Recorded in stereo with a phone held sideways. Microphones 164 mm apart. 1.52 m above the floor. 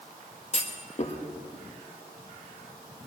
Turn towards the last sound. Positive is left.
turn(degrees=45)  # may be behind; listen again after turning